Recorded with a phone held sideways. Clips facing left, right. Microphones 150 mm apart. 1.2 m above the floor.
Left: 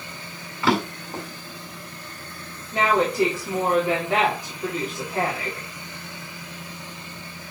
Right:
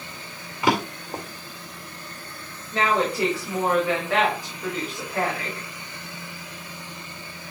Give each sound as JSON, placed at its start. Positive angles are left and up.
{"t": 0.6, "sound": "a drawer", "side_deg": -15, "distance_m": 2.0}
{"t": 2.7, "sound": "a woman speaking", "side_deg": 20, "distance_m": 3.0}